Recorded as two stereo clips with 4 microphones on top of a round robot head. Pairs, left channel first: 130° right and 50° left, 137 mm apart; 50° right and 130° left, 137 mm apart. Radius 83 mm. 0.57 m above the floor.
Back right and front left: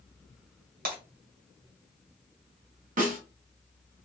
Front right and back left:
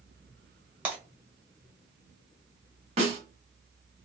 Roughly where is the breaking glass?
Ahead left.